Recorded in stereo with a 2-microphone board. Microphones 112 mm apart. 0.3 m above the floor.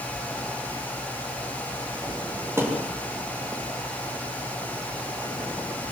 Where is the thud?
20° right (ahead or behind), 8.5 m.